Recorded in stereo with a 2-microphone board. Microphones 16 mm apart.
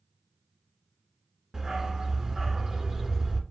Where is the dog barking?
40° right (ahead or behind), 1.2 m.